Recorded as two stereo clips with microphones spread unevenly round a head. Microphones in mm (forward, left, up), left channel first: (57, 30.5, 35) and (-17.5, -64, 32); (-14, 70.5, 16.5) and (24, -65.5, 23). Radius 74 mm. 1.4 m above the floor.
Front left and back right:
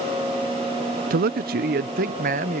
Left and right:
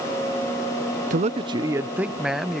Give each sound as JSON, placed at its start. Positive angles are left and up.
{"t": 1.1, "sound": "a man speaking", "azimuth_deg": -115}